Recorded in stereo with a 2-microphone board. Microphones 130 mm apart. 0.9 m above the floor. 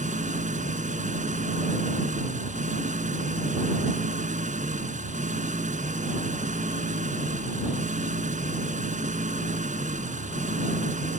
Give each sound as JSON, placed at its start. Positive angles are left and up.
{"t": 0.0, "sound": "an engine running", "side_deg": -85}